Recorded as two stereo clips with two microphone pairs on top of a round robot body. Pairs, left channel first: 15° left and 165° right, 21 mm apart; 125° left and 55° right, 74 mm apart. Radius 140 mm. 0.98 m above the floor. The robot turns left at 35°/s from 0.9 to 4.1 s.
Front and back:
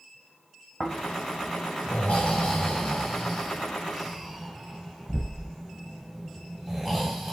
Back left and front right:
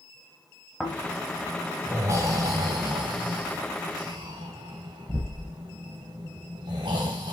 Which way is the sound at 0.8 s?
35° left.